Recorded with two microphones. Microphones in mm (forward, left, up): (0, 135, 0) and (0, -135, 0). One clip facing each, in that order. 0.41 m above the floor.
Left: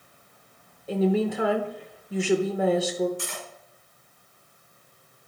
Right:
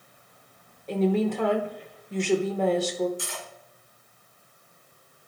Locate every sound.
0.9 s a woman speaking: 10° left (ahead or behind), 0.8 m
3.2 s cutlery clinking: 65° left (ahead or behind), 2 m